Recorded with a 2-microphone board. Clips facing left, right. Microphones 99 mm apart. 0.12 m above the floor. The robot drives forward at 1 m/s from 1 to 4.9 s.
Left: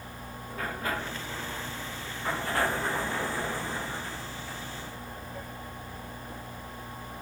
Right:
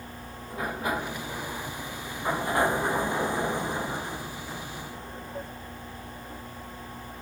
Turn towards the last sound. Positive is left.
turn(degrees=-25)  # may be behind; listen again after turning